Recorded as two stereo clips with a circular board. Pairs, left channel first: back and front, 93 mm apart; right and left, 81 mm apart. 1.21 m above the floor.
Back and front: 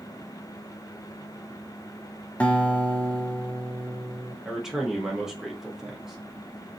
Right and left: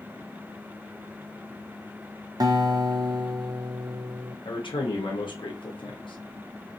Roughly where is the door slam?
I don't hear a door slam.